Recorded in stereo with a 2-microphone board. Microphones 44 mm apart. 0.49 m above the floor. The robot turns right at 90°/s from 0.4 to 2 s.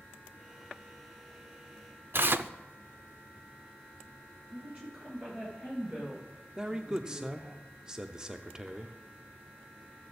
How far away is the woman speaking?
About 8 m.